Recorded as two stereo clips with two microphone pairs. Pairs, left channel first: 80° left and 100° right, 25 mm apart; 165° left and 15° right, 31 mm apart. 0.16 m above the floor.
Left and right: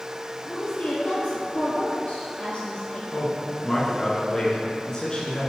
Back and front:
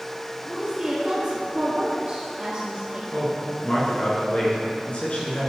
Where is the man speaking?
140° left, 2.5 m.